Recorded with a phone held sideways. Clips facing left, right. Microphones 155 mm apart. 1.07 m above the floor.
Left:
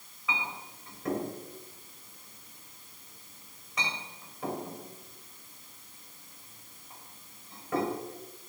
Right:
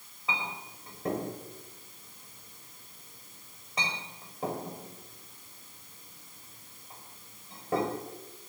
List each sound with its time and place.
0.3 s a clink: 30° right (ahead or behind), 3.5 m